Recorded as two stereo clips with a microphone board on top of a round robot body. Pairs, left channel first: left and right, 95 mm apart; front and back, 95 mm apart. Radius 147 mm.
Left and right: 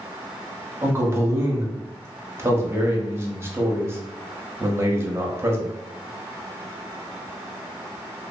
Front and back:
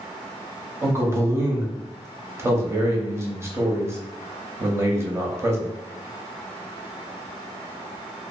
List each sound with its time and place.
0.8 s a man speaking: 135° right, 1.0 m